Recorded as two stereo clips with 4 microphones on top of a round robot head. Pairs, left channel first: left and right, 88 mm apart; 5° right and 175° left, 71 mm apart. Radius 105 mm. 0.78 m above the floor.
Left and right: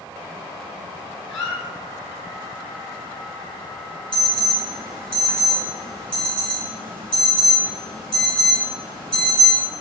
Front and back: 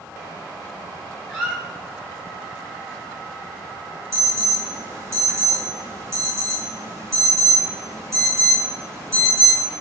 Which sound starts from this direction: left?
A squeak, at 1.3 s.